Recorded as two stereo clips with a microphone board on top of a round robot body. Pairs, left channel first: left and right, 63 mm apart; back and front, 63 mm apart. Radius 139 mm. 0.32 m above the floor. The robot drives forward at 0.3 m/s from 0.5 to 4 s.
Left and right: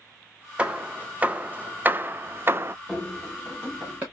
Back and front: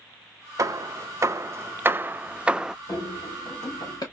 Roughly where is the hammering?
Ahead.